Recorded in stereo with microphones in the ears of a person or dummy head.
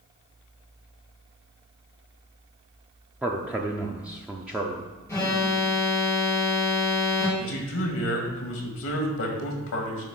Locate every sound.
3.2 s a man speaking: 5° right (ahead or behind), 0.6 m
5.1 s an alarm: 15° left (ahead or behind), 1.6 m
7.4 s a man speaking: 70° left (ahead or behind), 1.9 m